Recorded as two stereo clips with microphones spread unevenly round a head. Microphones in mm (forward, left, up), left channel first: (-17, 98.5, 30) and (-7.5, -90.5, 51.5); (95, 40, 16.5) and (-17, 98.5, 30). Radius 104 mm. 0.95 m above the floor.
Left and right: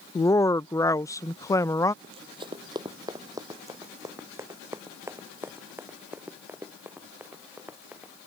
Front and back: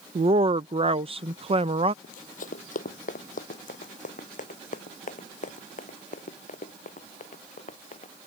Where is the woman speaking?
150° left.